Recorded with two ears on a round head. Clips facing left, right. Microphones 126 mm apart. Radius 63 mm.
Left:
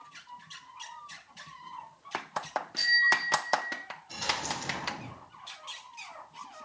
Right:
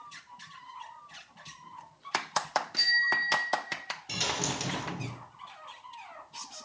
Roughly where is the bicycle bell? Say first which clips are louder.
Left 2 dB; centre.